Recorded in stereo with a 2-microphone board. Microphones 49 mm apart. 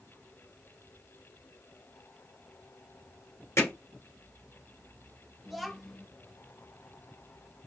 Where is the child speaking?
Centre (ahead or behind), 1.0 m.